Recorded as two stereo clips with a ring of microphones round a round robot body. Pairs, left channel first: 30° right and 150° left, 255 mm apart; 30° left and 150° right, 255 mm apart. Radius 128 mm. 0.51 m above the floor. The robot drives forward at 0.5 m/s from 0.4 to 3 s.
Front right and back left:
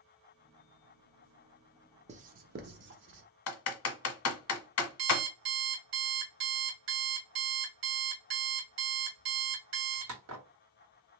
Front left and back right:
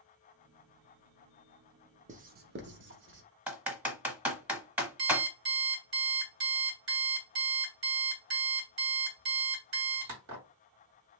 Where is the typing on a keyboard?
65° right, 0.7 m.